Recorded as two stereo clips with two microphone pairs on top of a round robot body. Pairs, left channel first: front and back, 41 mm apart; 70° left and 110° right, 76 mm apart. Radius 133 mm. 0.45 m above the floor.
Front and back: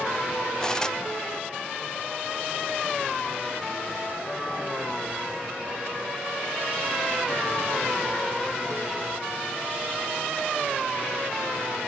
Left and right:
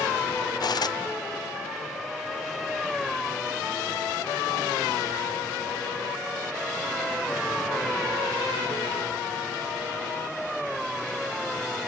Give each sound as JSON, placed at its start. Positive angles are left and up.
{"t": 0.6, "sound": "cutlery clinking", "azimuth_deg": 75, "distance_m": 0.7}